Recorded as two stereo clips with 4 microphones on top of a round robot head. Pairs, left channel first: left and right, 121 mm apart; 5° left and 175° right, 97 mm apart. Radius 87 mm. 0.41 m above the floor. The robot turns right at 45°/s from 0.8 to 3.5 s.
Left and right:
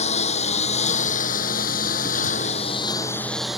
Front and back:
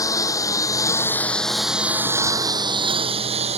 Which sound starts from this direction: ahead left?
A lawn mower, at 0.0 s.